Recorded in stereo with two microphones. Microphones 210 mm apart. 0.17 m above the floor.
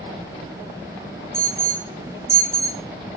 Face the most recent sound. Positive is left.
turn(degrees=-10)  # may be behind; listen again after turning